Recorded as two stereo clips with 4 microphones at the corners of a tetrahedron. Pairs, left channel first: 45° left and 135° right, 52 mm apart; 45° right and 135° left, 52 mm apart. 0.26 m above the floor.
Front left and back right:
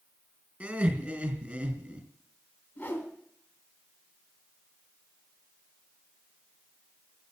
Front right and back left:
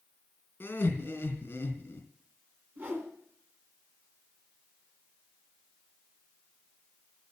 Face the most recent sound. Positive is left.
turn(degrees=95)